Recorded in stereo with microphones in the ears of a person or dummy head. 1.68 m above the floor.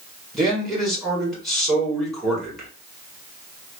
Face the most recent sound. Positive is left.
turn(degrees=0)  # may be behind; listen again after turning